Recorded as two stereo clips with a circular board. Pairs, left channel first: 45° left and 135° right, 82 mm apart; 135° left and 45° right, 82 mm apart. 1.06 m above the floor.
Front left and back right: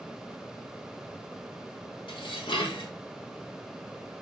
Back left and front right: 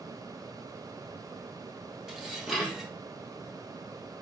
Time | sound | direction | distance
2.1 | dishes clattering | 40° left | 1.1 m